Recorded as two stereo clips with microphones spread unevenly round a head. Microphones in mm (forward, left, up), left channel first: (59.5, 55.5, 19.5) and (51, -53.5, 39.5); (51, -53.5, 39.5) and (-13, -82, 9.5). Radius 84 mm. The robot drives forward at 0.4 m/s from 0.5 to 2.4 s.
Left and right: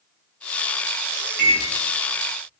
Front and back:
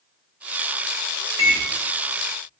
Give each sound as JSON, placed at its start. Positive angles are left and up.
{"t": 1.4, "sound": "a microwave", "azimuth_deg": -110, "distance_m": 1.2}